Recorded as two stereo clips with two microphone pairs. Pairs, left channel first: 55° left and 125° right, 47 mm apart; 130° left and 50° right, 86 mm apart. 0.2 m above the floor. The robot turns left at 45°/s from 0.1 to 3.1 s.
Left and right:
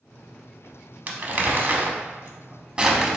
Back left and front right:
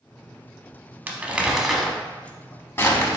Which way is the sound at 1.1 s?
100° right.